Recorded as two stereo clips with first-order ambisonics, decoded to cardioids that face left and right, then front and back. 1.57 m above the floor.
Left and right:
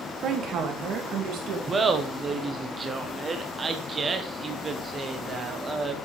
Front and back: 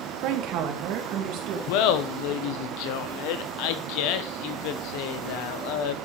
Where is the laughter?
15° right, 1.0 m.